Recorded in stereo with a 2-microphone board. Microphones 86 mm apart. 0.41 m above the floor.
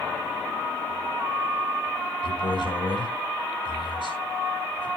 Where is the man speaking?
75° left (ahead or behind), 4.5 m.